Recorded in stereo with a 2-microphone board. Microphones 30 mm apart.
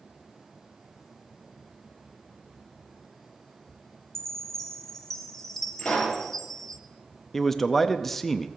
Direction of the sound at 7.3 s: 10° left (ahead or behind).